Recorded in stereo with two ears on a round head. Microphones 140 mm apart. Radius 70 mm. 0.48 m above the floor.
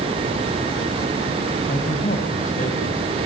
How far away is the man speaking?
About 3.5 m.